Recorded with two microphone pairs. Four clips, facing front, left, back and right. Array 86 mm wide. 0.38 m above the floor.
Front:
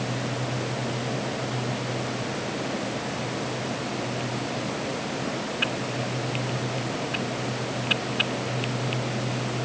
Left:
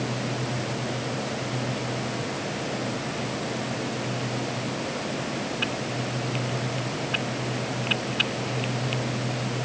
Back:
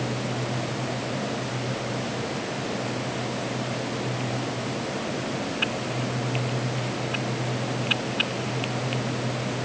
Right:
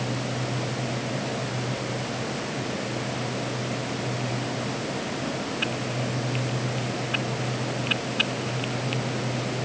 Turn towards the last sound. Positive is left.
No sound to turn to.